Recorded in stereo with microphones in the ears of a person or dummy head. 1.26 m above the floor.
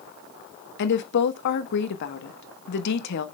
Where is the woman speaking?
60° left (ahead or behind), 1.1 m.